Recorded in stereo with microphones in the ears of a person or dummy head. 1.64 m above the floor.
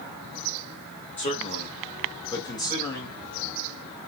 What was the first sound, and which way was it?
A man speaking, 40° left (ahead or behind).